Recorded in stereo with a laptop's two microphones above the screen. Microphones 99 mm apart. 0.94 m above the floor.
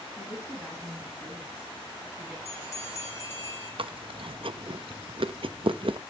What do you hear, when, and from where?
0.2 s a woman speaking: 5° left (ahead or behind), 6.5 m; by 2.4 s 15° right (ahead or behind), 7.5 m
2.5 s a bell: 30° left (ahead or behind), 7.5 m
3.8 s chewing: 60° right (ahead or behind), 0.7 m